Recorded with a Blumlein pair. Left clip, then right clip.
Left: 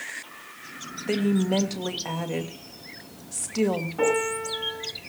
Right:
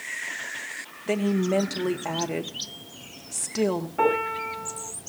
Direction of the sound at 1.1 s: 5° right.